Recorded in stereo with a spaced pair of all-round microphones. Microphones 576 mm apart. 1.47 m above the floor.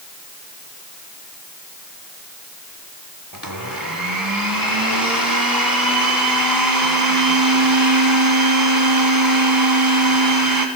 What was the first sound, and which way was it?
A blender, 35° right (ahead or behind).